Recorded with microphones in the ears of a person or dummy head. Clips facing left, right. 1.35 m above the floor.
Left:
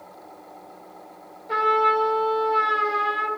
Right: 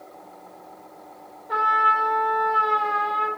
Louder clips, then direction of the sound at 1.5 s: Left 4 dB; 40° left (ahead or behind).